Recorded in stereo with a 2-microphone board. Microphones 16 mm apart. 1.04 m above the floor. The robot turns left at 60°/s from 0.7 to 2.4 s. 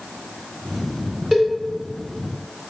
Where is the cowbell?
5° right (ahead or behind), 0.7 m; by 1.5 s centre (ahead or behind), 0.7 m.